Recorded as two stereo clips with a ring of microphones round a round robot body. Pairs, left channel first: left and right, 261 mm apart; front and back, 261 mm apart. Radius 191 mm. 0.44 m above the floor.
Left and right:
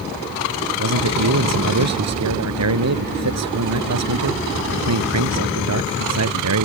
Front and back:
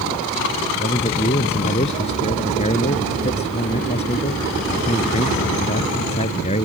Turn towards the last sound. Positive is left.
turn(degrees=-75)